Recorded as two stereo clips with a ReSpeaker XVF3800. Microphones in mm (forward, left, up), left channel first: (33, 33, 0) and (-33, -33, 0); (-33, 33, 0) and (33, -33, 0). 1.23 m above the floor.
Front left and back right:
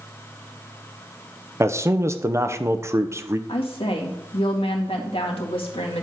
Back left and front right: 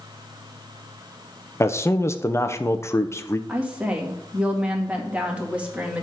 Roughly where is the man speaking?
Behind.